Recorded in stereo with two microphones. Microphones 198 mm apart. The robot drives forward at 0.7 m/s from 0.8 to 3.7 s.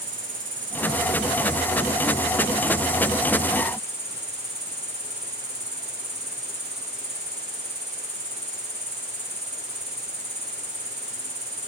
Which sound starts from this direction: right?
An insect, at 0.0 s.